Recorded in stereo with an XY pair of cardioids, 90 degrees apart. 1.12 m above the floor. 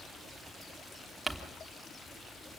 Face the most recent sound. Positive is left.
turn(degrees=-20)